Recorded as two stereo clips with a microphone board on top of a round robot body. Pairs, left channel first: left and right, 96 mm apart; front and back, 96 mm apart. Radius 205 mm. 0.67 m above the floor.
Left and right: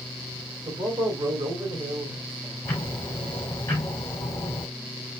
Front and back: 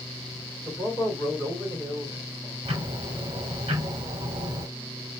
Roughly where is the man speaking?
Ahead right.